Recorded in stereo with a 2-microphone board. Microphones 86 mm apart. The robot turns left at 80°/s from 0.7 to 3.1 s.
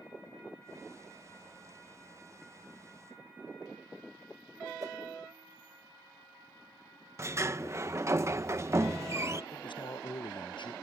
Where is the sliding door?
30° right (ahead or behind).